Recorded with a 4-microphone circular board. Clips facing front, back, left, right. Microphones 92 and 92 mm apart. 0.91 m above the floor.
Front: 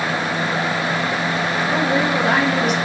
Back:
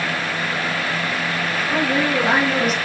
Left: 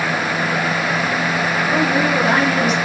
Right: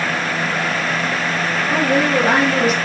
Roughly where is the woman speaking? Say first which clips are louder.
Even, right 2 dB; right.